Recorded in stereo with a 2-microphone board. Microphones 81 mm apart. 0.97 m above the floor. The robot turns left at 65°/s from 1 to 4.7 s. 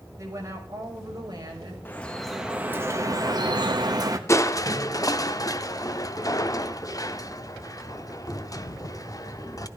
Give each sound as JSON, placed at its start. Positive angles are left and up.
{"t": 0.2, "sound": "a woman speaking", "azimuth_deg": -40, "distance_m": 5.5}
{"t": 1.9, "sound": "dripping", "azimuth_deg": 25, "distance_m": 1.3}
{"t": 4.3, "sound": "crushing", "side_deg": 40, "distance_m": 0.7}